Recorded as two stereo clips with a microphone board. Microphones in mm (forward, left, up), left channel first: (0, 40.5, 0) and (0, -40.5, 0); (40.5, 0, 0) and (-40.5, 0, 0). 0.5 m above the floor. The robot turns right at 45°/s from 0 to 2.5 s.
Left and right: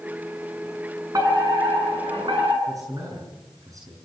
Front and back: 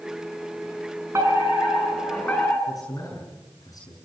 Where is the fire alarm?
130° right, 8 m; by 2.6 s 65° right, 8 m.